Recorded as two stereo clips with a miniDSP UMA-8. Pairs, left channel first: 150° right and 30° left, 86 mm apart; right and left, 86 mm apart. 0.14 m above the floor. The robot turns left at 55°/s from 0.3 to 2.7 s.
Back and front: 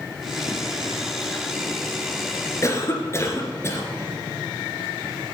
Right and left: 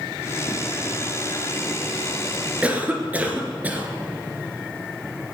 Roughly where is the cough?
Behind.